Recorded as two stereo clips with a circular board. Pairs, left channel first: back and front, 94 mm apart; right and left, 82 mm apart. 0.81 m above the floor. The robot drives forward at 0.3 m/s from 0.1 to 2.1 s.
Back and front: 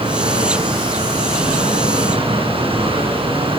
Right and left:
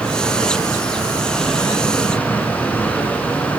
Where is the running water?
15° right, 8.5 m; by 3.6 s 20° right, 8 m.